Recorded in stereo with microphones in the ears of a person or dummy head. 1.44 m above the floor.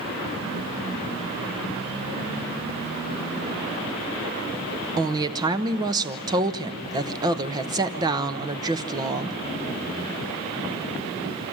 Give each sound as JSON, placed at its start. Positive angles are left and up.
{"t": 5.0, "sound": "a woman speaking", "side_deg": -25, "distance_m": 1.0}